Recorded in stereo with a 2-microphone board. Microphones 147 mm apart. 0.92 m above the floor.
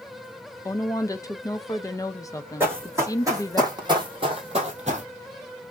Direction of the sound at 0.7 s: 25° left (ahead or behind).